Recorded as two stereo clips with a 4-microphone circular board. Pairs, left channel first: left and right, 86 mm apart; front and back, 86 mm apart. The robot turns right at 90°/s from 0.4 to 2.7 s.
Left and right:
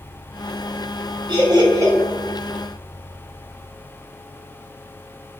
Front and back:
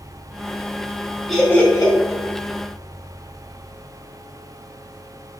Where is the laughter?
90° right, 0.9 m; by 1.9 s 35° right, 0.9 m.